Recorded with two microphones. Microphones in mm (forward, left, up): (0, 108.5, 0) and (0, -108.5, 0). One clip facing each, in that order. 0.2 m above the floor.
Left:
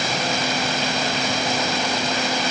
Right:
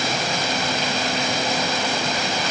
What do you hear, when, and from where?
Only background noise.